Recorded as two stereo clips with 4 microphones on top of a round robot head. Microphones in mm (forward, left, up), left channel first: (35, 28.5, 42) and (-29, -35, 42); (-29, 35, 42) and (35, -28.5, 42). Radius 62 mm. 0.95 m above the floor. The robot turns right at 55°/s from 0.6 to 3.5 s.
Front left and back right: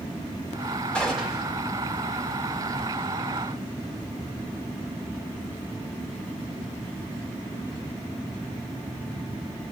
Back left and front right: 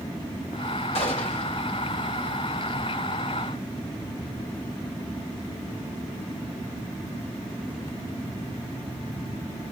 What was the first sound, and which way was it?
A gunshot, 125° left.